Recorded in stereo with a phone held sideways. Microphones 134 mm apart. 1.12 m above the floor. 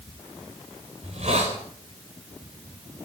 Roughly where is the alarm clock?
I don't hear an alarm clock.